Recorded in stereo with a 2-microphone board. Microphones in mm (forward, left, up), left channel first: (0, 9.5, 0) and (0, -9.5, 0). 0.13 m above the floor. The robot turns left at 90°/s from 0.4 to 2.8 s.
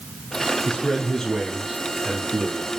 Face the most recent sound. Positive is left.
turn(degrees=-120)